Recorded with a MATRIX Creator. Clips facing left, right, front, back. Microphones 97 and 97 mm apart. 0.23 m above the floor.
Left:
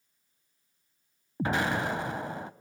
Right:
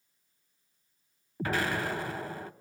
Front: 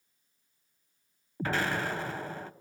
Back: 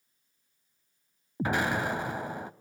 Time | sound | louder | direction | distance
1.4 | an explosion | left 2 dB, back 2 dB | 125° left | 0.7 m